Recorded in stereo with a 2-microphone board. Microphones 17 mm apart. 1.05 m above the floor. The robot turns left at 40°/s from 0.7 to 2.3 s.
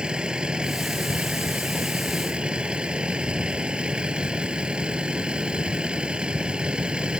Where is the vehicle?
55° right; by 7.2 s 120° right.